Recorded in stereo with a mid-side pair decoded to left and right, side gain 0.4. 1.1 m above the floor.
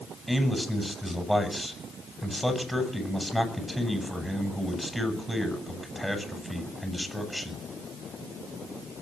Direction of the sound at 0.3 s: Straight ahead.